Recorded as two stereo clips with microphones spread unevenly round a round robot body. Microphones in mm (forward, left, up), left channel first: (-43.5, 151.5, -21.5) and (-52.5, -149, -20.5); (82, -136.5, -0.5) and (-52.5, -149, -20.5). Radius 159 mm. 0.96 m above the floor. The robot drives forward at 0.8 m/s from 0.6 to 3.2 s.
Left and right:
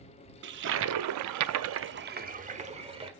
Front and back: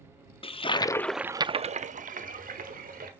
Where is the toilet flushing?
40° right, 0.7 m; by 3.1 s 165° right, 1.6 m.